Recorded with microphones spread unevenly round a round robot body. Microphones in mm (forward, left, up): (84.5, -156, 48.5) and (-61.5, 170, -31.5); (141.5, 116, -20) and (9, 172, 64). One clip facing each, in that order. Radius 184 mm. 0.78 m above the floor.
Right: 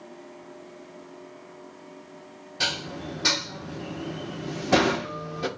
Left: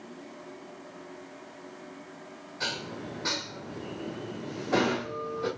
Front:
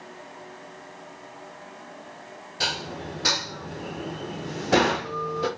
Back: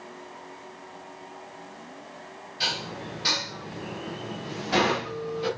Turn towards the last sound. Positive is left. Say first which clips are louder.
# right 3 dB, front 2 dB
turn(degrees=-40)